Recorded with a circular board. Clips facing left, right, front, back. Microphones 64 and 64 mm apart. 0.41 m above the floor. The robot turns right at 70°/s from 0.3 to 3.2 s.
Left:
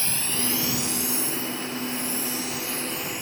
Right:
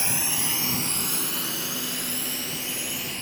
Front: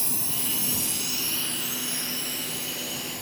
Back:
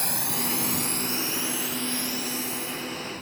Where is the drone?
160° right; by 3.2 s 10° left.